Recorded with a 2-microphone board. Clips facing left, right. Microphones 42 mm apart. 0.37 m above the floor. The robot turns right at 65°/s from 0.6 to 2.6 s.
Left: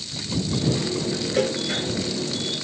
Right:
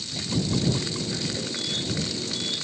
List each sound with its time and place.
1.4 s a cowbell: 65° left (ahead or behind); by 1.6 s 50° left (ahead or behind)